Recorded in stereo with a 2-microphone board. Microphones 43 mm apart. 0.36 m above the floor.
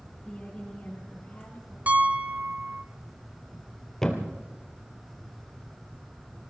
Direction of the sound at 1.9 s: 40° right (ahead or behind).